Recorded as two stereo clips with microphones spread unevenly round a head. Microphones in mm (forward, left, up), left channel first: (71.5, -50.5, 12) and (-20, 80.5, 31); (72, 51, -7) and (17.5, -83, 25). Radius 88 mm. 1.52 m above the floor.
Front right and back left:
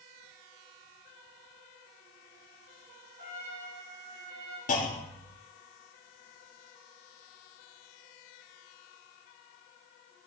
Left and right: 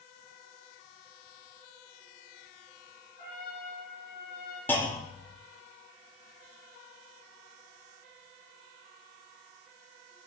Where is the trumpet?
105° left, 2.5 m.